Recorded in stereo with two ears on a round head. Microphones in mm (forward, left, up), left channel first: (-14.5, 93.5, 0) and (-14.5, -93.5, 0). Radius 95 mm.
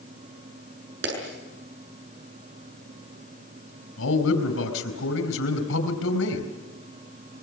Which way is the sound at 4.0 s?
70° left (ahead or behind).